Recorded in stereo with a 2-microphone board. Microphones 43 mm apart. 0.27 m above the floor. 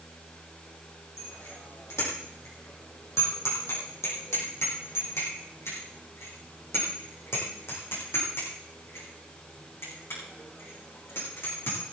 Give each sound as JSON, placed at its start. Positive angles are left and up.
{"t": 1.2, "sound": "a bicycle bell", "side_deg": 85, "distance_m": 6.5}